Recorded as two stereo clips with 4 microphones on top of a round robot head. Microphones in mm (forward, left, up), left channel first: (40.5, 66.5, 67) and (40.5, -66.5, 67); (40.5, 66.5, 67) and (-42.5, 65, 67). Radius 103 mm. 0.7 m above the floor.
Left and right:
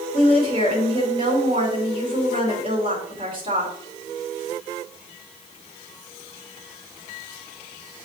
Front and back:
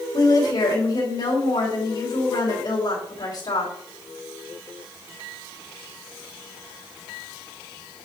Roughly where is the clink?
No clink in this recording.